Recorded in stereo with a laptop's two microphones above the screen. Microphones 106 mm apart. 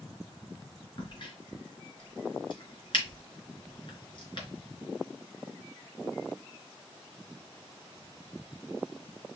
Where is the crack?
45° left (ahead or behind), 3.5 m.